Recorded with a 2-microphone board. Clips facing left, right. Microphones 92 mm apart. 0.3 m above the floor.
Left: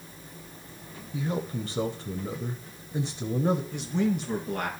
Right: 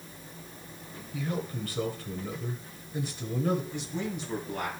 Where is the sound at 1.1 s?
25° left (ahead or behind), 1.0 m.